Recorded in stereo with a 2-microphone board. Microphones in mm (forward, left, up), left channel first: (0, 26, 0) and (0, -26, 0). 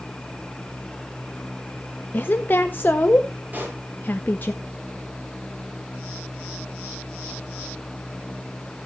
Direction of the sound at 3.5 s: 40° right (ahead or behind).